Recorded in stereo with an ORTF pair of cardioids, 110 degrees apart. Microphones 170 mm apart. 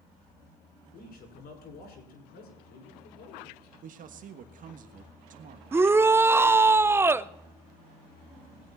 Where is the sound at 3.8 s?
50° right, 1.4 m.